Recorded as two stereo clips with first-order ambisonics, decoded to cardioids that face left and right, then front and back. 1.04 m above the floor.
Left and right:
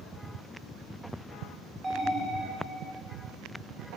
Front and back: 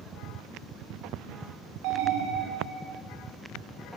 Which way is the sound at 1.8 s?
170° right.